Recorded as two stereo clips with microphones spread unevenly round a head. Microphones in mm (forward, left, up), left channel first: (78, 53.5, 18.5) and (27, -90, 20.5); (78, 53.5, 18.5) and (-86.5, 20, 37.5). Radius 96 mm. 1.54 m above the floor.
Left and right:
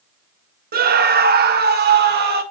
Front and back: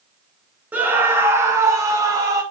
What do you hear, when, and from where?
0.7 s a scream: 90° right, 1.1 m; by 2.4 s 95° right, 2 m